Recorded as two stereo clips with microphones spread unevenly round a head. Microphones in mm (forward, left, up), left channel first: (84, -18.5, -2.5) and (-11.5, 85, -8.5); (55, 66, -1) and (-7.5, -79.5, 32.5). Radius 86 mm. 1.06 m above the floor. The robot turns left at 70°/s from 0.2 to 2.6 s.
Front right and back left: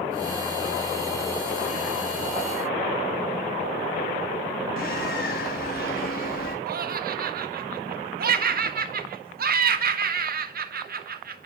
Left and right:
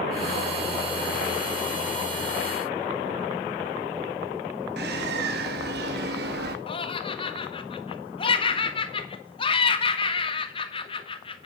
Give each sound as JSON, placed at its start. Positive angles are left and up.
{"t": 4.8, "sound": "a bird", "azimuth_deg": -90, "distance_m": 1.7}
{"t": 6.7, "sound": "laughter", "azimuth_deg": 125, "distance_m": 1.5}